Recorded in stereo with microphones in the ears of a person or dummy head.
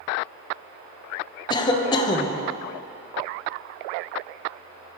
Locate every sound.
1.5 s a cough: 25° left (ahead or behind), 0.8 m